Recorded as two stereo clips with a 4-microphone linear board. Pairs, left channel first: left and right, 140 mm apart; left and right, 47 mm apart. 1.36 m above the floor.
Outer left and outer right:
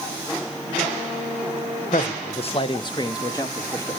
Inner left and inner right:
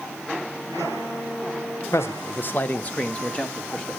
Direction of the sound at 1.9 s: 70° left (ahead or behind).